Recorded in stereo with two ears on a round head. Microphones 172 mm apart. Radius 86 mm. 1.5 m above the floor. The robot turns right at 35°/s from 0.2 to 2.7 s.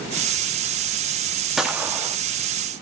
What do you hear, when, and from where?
1.6 s a gunshot: centre (ahead or behind), 1.1 m; by 2.2 s 20° right (ahead or behind), 1.1 m